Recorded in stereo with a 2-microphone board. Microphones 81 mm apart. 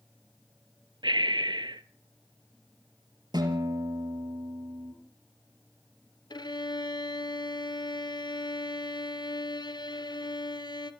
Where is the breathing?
70° right (ahead or behind), 0.8 m.